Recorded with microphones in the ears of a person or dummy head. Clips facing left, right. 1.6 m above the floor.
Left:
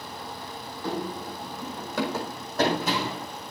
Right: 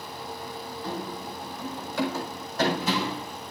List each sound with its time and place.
0.8 s running footsteps: 55° left (ahead or behind), 3.5 m; by 3.2 s 40° left (ahead or behind), 5 m